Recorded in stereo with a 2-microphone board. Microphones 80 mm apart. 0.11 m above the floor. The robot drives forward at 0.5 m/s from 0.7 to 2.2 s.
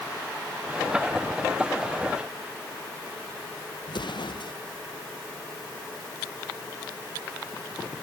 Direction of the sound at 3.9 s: 70° left (ahead or behind).